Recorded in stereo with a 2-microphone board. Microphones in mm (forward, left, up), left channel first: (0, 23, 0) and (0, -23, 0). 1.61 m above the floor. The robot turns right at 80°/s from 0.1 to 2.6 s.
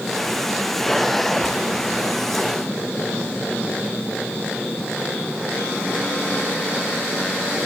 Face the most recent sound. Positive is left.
No sound to turn to.